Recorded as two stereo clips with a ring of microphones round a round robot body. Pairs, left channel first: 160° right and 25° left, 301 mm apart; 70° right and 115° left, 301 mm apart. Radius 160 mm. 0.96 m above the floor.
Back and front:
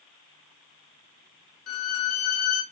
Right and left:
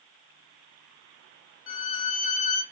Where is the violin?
115° right, 0.8 m.